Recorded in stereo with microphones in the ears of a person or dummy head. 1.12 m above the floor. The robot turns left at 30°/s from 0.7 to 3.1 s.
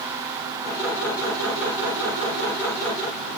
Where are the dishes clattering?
No dishes clattering in this recording.